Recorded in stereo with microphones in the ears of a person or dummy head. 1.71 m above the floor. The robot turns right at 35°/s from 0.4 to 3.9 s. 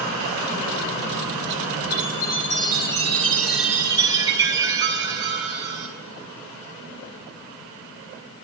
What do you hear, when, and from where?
1.9 s a chime: 125° left, 5 m; by 5.9 s 165° right, 5 m